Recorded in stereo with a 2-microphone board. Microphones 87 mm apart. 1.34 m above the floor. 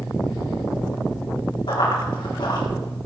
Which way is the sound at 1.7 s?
70° left (ahead or behind).